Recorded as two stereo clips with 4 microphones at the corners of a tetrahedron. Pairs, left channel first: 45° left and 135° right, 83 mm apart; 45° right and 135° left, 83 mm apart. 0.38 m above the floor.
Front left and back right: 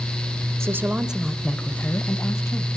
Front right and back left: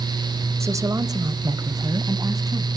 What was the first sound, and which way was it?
A woman speaking, straight behind.